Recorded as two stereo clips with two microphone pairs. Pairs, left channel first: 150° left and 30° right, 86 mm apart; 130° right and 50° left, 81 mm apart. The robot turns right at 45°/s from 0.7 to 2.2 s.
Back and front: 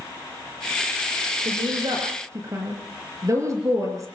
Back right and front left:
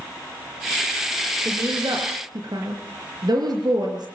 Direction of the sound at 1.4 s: 15° right.